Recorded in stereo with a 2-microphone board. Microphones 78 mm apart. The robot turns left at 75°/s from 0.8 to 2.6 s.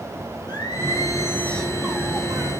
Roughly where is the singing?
Left.